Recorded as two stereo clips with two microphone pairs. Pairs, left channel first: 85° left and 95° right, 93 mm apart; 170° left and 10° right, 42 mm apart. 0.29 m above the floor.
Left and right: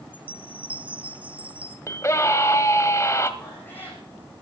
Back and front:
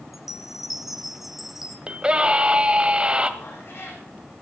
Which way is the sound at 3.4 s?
155° left.